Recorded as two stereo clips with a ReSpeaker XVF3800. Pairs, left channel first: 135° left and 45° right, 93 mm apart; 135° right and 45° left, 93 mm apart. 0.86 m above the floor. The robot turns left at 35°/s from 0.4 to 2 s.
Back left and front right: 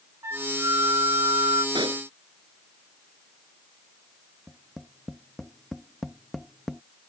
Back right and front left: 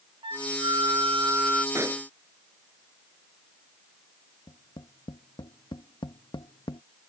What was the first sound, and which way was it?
A flute, 15° left.